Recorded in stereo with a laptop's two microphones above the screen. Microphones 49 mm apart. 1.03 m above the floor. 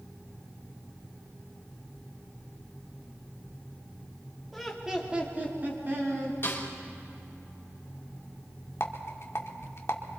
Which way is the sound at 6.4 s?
45° left (ahead or behind).